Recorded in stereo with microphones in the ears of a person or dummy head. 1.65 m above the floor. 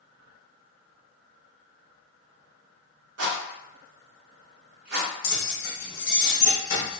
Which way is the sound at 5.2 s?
55° left (ahead or behind).